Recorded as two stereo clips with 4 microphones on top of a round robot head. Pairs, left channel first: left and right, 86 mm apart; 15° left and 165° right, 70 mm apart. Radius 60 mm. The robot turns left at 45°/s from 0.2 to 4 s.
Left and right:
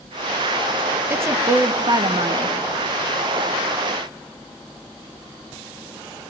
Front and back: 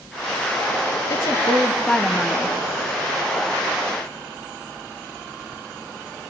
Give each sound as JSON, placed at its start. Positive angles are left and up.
{"t": 1.1, "sound": "a woman speaking", "azimuth_deg": -30, "distance_m": 1.0}